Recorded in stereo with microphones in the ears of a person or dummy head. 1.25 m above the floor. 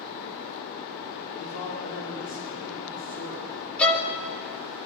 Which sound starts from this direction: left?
A man speaking, at 1.3 s.